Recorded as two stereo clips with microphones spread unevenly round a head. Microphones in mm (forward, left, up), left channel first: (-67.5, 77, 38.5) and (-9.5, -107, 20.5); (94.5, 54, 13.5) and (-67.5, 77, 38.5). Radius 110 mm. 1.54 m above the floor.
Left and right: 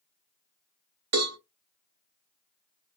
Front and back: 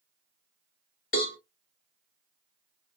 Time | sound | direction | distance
1.1 | a cowbell | 65° right | 1.4 m